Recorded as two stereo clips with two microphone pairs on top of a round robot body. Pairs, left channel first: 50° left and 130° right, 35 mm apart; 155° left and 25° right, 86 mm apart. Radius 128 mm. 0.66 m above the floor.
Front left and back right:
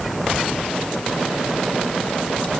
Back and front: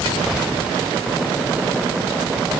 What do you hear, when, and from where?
Only background noise.